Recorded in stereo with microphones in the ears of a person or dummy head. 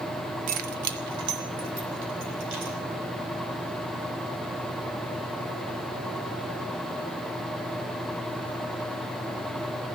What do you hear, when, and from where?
0.5 s keys jangling: 45° right (ahead or behind), 0.7 m; by 2.8 s 70° right (ahead or behind), 3.5 m